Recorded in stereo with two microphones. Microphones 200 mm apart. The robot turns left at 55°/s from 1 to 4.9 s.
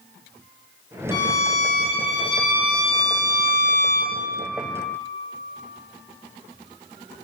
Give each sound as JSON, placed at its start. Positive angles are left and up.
{"t": 1.1, "sound": "a violin", "azimuth_deg": 130, "distance_m": 0.7}